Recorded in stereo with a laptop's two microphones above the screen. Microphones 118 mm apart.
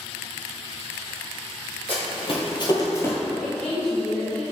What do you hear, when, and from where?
1.9 s running footsteps: 55° left (ahead or behind), 1.7 m; by 3.2 s 15° left (ahead or behind), 1.0 m
3.4 s a woman speaking: 5° left (ahead or behind), 0.6 m